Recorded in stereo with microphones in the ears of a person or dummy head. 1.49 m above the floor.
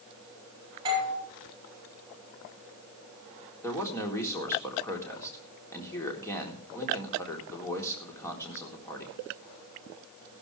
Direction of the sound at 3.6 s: 15° left (ahead or behind).